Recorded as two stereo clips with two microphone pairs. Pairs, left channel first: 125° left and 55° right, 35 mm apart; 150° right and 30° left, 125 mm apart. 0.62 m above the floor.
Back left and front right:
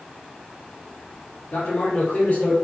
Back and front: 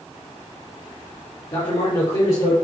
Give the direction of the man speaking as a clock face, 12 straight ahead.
6 o'clock.